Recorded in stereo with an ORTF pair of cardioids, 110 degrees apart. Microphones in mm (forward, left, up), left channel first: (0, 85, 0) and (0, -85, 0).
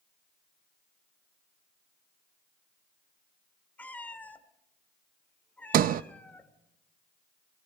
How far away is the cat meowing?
About 1.8 m.